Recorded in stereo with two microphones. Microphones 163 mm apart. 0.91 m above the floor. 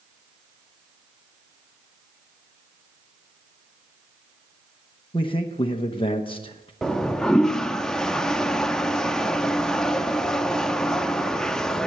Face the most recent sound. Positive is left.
turn(degrees=5)  # may be behind; listen again after turning